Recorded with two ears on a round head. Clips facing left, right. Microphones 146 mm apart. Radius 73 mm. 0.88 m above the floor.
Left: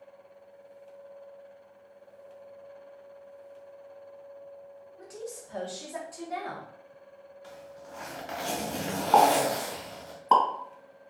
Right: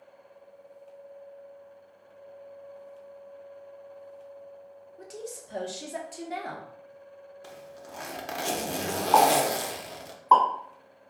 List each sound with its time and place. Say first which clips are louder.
5.0 s a woman speaking: right 1 dB; 30° right (ahead or behind), 1.2 m
7.4 s a zipper: left 1 dB; 60° right (ahead or behind), 0.8 m
9.1 s a pop: even; 30° left (ahead or behind), 1.7 m